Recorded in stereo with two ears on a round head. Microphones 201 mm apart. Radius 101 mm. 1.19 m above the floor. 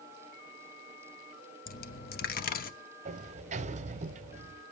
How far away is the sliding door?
About 0.8 m.